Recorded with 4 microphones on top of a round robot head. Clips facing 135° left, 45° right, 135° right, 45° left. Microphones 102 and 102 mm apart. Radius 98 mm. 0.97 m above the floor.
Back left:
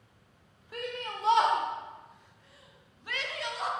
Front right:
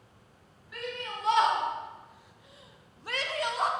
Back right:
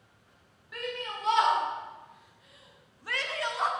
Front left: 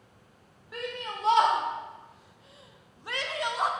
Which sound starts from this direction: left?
A shout, at 0.7 s.